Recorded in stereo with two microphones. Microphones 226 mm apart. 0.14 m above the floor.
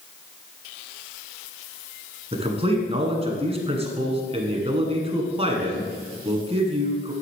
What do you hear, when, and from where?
2.3 s a man speaking: 25° right (ahead or behind), 1.5 m